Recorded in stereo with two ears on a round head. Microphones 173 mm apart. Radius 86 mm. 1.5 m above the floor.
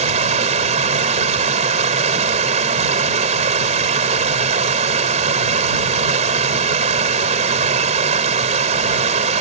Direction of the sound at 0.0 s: 35° right (ahead or behind).